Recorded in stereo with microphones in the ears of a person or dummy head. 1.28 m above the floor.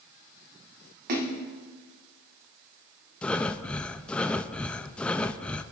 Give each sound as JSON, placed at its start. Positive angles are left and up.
{"t": 1.1, "sound": "a splash", "side_deg": -45, "distance_m": 1.6}
{"t": 3.2, "sound": "breathing", "side_deg": 5, "distance_m": 0.5}